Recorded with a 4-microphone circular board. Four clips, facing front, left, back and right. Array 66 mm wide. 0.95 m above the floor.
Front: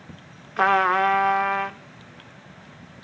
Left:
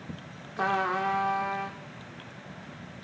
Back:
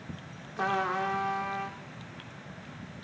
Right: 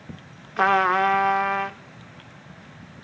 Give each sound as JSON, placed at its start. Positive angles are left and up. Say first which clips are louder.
{"t": 0.6, "sound": "a trumpet", "louder": "right 8 dB, front 10 dB", "azimuth_deg": -35, "distance_m": 0.9}